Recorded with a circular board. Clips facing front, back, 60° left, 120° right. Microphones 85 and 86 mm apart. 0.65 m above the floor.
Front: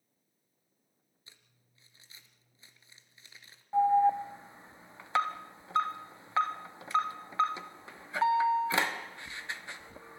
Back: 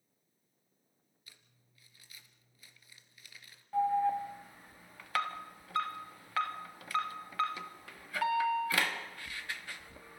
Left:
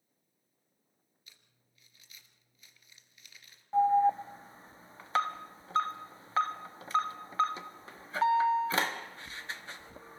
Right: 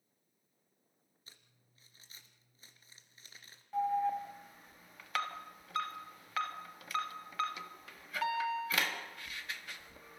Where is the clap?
No clap in this recording.